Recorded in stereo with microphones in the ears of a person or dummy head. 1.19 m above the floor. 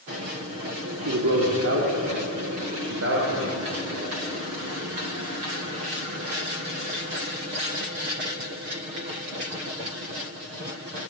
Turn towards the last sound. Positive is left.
turn(degrees=-65)  # may be behind; listen again after turning